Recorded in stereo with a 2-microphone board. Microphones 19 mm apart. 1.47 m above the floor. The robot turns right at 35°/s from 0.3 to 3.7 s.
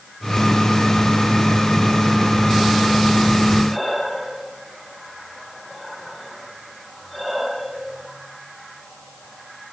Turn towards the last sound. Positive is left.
turn(degrees=0)  # may be behind; listen again after turning